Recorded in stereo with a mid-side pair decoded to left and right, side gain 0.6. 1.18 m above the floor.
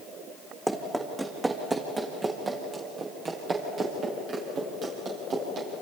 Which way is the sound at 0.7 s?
10° right.